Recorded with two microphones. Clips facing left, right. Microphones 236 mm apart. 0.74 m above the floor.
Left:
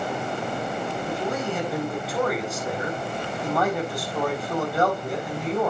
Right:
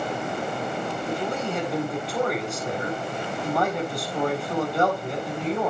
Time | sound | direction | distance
1.1 | a man speaking | centre (ahead or behind) | 4 m